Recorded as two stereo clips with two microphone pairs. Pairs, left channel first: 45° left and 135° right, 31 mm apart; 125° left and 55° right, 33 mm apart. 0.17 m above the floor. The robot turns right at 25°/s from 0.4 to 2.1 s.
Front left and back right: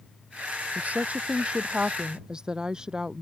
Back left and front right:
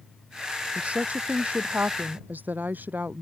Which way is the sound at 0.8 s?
105° right.